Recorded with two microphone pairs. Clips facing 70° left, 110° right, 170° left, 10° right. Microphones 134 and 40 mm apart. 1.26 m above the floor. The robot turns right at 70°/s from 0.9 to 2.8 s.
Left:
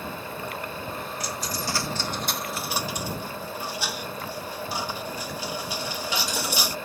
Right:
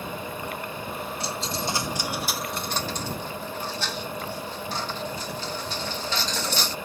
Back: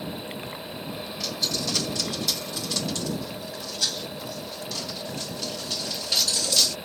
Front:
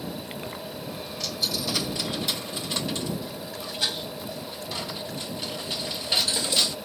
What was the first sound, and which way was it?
A dropped coin, 100° right.